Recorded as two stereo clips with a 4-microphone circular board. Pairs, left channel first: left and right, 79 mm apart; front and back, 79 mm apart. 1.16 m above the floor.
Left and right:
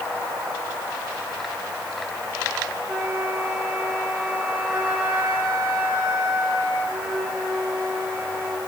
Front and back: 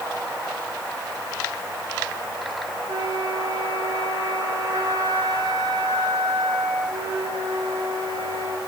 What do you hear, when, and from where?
2.9 s a flute: 155° right, 4.5 m